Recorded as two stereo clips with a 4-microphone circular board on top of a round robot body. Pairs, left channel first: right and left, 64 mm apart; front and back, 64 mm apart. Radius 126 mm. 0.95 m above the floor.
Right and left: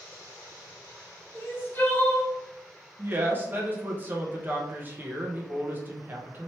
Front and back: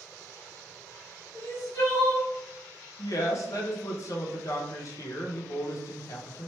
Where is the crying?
35° right, 1.4 m.